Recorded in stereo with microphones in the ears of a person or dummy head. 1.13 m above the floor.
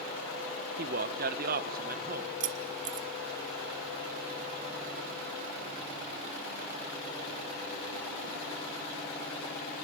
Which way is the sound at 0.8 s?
45° right (ahead or behind).